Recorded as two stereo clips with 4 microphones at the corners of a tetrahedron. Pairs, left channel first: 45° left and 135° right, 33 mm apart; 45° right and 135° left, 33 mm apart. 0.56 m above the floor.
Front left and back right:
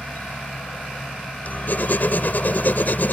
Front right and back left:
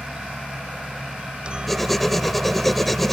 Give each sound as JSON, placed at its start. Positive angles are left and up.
{"t": 0.0, "sound": "a helicopter", "azimuth_deg": 75}
{"t": 1.7, "sound": "writing", "azimuth_deg": 35}